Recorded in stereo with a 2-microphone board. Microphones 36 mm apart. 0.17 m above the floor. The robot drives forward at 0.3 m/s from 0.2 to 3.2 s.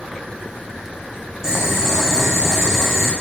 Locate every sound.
1.4 s boiling: 15° right (ahead or behind), 7 m; by 3.1 s 10° right (ahead or behind), 7.5 m